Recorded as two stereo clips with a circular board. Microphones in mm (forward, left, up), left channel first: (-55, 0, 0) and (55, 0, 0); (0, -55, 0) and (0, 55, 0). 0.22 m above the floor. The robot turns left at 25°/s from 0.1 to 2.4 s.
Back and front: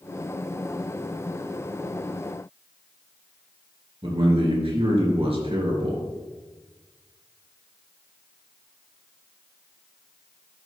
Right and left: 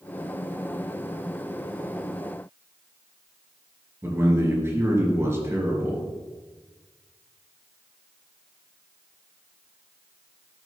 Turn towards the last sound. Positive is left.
turn(degrees=25)